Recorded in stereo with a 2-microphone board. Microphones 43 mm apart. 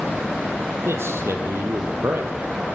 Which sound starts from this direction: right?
A man speaking, at 0.8 s.